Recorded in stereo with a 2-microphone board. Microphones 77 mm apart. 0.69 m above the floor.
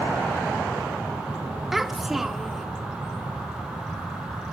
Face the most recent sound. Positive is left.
turn(degrees=-5)  # may be behind; listen again after turning